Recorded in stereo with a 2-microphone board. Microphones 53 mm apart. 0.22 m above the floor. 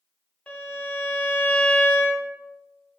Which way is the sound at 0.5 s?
15° left (ahead or behind).